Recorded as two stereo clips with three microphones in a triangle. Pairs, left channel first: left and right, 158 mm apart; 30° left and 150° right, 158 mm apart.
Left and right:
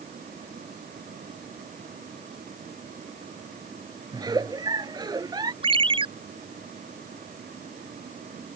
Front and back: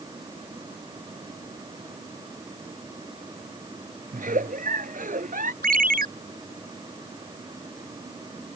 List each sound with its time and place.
4.1 s a giggle: 150° right
5.6 s a ringtone: 145° right